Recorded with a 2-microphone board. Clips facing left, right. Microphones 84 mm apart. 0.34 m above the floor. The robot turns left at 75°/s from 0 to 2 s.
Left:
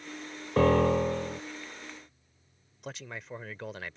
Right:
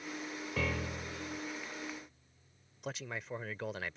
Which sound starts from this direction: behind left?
A piano, at 0.6 s.